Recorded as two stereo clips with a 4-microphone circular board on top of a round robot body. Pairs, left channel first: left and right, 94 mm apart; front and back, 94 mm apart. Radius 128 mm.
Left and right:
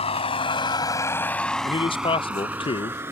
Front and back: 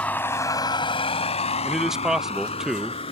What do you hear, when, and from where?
0.0 s a vehicle: 75° left; by 3.1 s 25° right
1.6 s a man speaking: 95° left